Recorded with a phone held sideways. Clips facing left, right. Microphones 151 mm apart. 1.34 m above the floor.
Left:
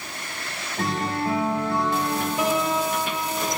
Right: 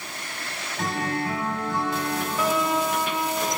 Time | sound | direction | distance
0.8 | a guitar | 40° left (ahead or behind) | 3 m
2.4 | a piano | 15° left (ahead or behind) | 1.2 m